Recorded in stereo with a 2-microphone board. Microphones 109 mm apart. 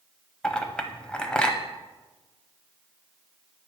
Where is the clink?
10° left (ahead or behind), 0.6 m.